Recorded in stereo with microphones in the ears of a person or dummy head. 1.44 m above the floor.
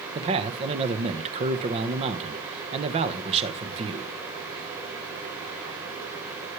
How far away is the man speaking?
About 1.3 m.